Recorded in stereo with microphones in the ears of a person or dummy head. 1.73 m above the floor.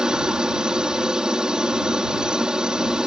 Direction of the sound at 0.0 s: 5° right (ahead or behind).